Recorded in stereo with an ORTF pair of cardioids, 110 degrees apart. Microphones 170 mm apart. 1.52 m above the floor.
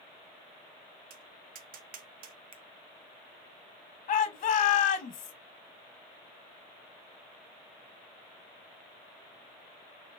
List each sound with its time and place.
1.1 s tapping: 60° right, 0.8 m
2.5 s a finger snap: 30° right, 0.7 m
4.1 s a shout: 50° left, 1.3 m